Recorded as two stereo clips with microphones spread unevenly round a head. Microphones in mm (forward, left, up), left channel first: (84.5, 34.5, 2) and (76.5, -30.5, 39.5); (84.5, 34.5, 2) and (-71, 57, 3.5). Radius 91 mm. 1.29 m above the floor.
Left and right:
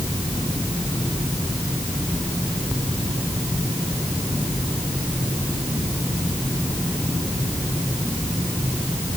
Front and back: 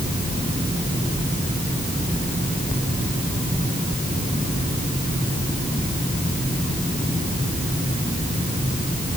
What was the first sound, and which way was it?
Only background noise.